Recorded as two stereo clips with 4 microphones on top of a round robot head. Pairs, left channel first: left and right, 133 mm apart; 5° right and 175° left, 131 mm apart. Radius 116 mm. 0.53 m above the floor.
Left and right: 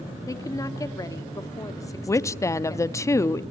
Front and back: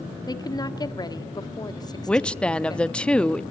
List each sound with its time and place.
0.3 s a woman speaking: 35° left, 1.5 m
2.1 s a woman speaking: 65° left, 0.6 m